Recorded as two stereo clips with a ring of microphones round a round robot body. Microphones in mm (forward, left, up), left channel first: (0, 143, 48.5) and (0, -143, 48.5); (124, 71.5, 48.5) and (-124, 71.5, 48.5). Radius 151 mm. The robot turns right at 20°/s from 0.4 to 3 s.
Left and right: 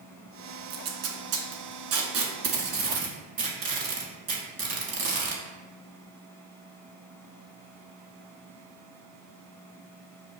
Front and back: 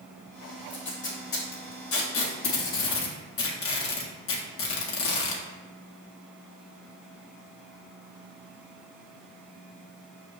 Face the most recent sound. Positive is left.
turn(degrees=-25)